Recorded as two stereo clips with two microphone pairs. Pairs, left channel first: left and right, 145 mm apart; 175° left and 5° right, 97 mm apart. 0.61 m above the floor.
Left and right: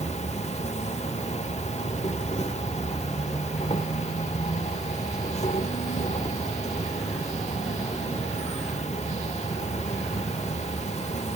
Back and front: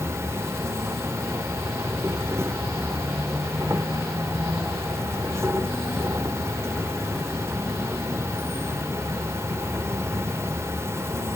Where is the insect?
50° left, 1.4 m.